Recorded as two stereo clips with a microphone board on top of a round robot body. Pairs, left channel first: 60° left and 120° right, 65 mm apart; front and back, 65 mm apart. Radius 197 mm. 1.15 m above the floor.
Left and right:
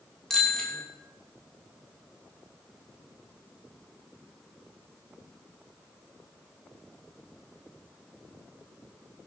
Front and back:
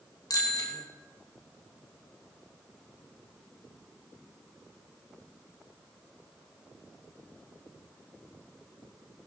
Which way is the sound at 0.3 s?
20° right.